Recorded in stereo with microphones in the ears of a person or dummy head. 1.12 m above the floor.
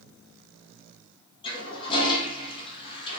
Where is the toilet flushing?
25° left (ahead or behind), 1.1 m.